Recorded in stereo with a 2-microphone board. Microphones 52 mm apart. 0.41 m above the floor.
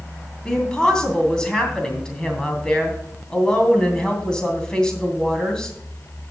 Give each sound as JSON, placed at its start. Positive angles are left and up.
{"t": 0.5, "sound": "a woman speaking", "side_deg": 15, "distance_m": 2.5}